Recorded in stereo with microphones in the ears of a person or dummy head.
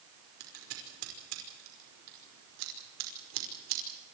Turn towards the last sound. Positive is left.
turn(degrees=-80)